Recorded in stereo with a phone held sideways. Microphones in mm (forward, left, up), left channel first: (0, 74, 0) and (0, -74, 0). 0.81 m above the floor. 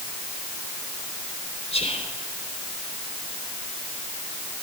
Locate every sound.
1.7 s whispering: 40° left (ahead or behind), 4 m